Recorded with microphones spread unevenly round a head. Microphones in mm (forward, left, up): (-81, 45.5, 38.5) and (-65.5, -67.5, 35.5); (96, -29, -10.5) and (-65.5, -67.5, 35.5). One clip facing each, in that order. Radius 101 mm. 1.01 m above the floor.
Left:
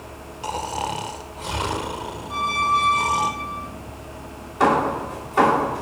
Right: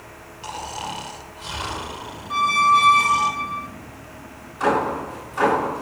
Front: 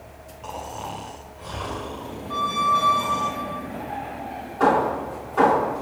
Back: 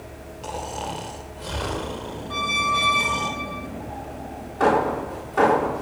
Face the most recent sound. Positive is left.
turn(degrees=115)